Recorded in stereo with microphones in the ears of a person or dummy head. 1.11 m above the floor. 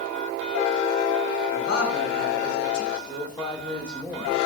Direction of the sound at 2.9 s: 5° left (ahead or behind).